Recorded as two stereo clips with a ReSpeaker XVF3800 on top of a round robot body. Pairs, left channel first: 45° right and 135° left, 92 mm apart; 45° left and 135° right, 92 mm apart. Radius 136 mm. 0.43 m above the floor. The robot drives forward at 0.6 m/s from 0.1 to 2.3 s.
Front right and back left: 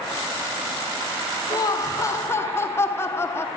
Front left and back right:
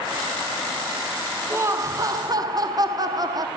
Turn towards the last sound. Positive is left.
turn(degrees=-100)